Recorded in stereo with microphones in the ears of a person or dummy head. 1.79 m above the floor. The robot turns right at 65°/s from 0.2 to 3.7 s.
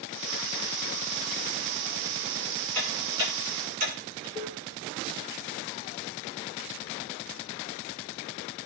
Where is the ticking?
10° left (ahead or behind), 8 m; by 4.2 s 50° right (ahead or behind), 8 m.